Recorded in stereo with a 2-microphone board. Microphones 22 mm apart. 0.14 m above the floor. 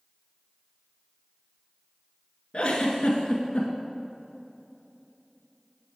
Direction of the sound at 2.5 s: 50° left (ahead or behind).